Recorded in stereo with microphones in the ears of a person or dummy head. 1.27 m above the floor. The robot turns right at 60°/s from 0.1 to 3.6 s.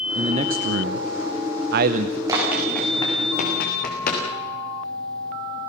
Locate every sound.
0.1 s a man speaking: 155° right, 0.7 m; by 2.2 s 30° right, 0.7 m
2.3 s running footsteps: 20° right (ahead or behind), 6.5 m; by 4.2 s 50° left (ahead or behind), 6 m